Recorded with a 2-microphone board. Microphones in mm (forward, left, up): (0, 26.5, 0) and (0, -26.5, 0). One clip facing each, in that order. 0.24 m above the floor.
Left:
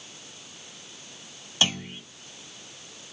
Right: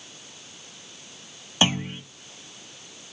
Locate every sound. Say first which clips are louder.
1.6 s a clunk: right 4 dB; 25° right (ahead or behind), 1.2 m